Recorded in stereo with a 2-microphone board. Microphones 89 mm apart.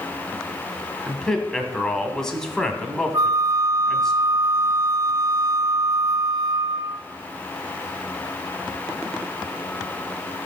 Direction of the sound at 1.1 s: 5° left (ahead or behind).